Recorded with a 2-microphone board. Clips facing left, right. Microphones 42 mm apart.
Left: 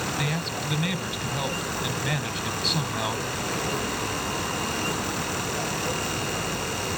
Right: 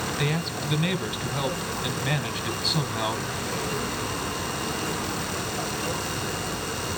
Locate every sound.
0.2 s a man speaking: centre (ahead or behind), 1.3 m